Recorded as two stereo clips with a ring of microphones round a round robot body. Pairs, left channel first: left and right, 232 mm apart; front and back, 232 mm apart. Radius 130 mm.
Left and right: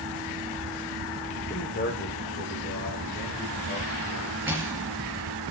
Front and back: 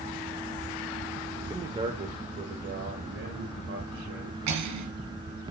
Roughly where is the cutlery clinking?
Behind.